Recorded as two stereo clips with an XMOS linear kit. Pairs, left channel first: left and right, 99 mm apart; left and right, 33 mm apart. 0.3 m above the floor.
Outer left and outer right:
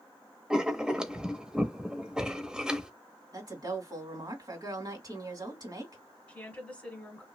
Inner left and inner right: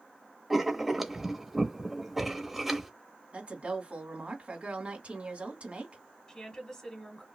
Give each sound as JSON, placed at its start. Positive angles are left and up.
{"t": 0.5, "sound": "writing", "side_deg": -5, "distance_m": 0.8}
{"t": 3.3, "sound": "a woman speaking", "side_deg": -40, "distance_m": 2.0}
{"t": 6.3, "sound": "a woman speaking", "side_deg": 15, "distance_m": 1.2}